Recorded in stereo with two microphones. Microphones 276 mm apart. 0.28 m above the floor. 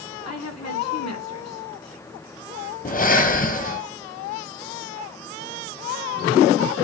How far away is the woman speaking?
About 2.5 m.